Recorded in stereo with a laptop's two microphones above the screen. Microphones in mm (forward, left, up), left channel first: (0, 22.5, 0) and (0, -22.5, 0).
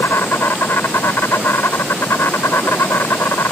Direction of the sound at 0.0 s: 75° left (ahead or behind).